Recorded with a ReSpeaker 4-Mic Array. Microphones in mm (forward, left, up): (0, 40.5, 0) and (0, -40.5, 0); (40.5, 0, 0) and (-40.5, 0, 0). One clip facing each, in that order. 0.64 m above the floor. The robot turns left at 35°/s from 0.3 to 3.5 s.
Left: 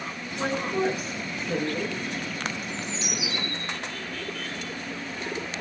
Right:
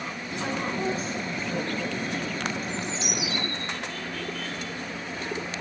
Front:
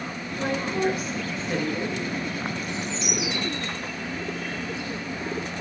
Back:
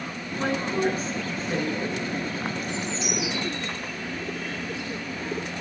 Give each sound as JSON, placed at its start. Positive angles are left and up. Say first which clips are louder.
{"t": 0.4, "sound": "a woman speaking", "louder": "left 3 dB, even", "azimuth_deg": 145, "distance_m": 9.5}
{"t": 2.6, "sound": "a bird", "louder": "right 2 dB, even", "azimuth_deg": 55, "distance_m": 9.5}